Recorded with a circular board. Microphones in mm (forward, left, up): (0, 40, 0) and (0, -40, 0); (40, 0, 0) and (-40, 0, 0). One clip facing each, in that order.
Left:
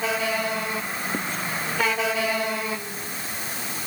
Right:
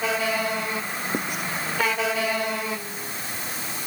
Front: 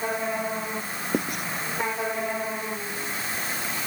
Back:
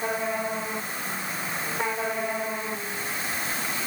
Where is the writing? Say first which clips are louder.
Right 2 dB, front 6 dB; 15° right.